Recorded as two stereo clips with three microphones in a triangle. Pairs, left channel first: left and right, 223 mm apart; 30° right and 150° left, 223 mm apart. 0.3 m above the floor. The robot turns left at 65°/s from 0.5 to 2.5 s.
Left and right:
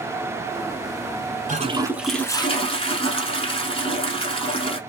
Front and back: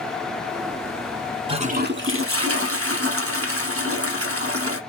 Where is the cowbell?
No cowbell in this recording.